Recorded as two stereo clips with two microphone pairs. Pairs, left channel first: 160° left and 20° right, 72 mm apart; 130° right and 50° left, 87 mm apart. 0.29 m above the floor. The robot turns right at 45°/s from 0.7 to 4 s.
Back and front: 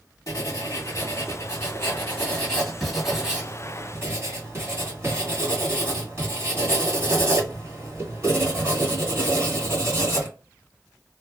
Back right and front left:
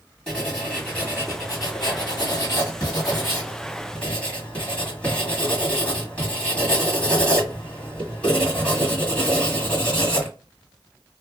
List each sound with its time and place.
0.3 s writing: 155° left, 2 m; by 10.3 s 55° right, 2 m